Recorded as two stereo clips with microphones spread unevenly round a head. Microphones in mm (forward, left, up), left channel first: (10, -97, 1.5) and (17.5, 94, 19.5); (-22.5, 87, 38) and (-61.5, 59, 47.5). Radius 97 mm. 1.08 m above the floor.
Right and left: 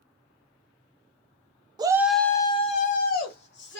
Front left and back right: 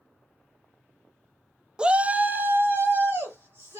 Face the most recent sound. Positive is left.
turn(degrees=-95)